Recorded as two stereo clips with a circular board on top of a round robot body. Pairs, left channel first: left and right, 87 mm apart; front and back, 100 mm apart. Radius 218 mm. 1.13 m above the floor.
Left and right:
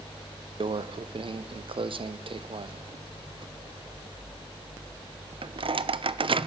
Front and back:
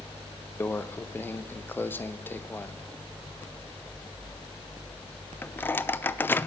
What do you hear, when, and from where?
0.6 s a microwave: 70° right, 0.5 m